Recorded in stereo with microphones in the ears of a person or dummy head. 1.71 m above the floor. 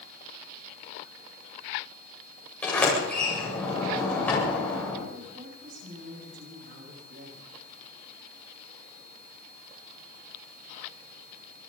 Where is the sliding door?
10° left (ahead or behind), 9 m.